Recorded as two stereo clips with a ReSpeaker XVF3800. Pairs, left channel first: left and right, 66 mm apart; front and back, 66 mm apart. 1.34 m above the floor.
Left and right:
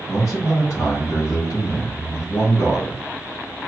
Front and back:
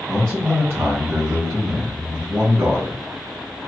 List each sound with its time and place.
0.1 s a man speaking: 125° left, 1.7 m